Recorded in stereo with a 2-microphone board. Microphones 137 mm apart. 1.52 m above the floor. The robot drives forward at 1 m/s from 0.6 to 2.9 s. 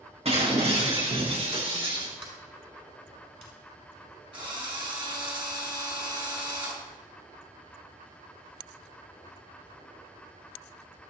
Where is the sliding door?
40° right (ahead or behind), 7 m.